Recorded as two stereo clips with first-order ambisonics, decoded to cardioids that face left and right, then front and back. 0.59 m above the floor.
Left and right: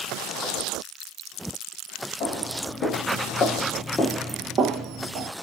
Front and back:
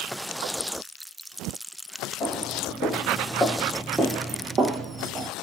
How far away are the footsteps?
About 1.3 m.